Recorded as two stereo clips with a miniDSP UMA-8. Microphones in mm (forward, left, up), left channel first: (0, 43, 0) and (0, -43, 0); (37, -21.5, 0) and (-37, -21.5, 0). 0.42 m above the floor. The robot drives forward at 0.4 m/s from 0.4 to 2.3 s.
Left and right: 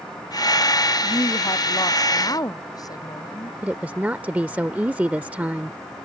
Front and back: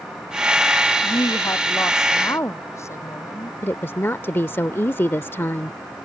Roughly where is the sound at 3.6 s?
Ahead right.